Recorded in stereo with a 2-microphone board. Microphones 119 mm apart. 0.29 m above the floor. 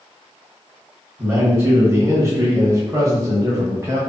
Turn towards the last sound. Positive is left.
turn(degrees=-25)  # may be behind; listen again after turning